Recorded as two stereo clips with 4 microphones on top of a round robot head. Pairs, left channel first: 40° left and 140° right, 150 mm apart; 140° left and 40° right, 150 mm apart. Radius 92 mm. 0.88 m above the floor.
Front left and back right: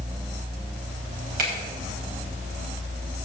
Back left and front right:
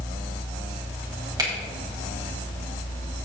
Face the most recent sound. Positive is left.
turn(degrees=-105)